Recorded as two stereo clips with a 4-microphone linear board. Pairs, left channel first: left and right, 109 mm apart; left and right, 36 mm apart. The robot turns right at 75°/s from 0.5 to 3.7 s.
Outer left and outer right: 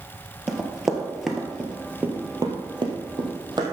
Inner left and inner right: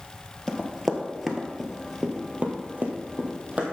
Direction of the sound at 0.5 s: 5° right (ahead or behind).